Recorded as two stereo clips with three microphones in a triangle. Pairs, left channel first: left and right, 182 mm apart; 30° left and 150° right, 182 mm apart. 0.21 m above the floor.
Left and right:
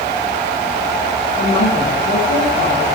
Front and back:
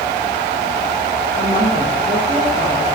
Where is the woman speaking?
105° left, 5 m.